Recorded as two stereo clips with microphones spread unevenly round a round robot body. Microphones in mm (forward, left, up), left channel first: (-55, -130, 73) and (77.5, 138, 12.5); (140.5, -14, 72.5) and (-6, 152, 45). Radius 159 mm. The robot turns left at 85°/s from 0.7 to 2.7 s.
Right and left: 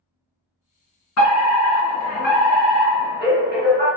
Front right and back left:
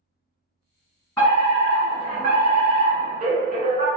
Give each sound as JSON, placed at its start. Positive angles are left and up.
{"t": 1.2, "sound": "a fire alarm", "azimuth_deg": -130, "distance_m": 1.7}